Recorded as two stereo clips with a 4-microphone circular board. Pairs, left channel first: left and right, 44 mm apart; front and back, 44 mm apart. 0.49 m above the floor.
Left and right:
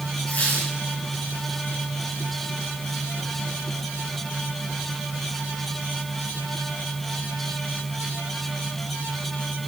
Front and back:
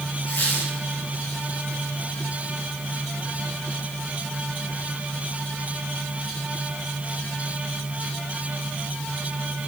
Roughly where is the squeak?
Ahead left.